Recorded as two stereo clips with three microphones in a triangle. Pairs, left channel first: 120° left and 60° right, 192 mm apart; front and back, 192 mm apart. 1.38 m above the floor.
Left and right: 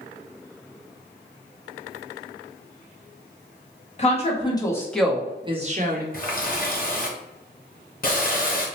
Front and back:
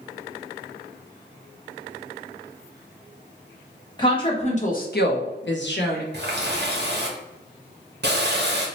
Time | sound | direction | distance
4.0 | a woman speaking | 70° left | 1.2 m
6.1 | a running tap | 160° left | 0.9 m